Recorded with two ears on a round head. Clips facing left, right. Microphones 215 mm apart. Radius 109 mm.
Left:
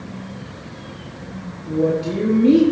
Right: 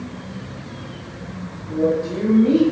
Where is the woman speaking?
45° left (ahead or behind), 1.8 m.